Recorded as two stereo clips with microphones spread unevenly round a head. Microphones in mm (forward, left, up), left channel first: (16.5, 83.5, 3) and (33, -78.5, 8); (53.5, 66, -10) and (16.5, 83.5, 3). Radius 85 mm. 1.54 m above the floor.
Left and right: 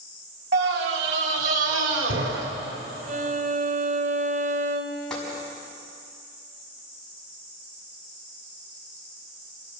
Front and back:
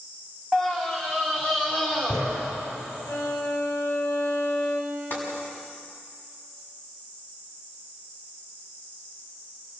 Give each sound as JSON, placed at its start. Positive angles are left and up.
{"t": 0.5, "sound": "a scream", "azimuth_deg": -115, "distance_m": 3.0}
{"t": 3.1, "sound": "a violin", "azimuth_deg": -60, "distance_m": 2.0}
{"t": 5.1, "sound": "tapping", "azimuth_deg": 10, "distance_m": 6.5}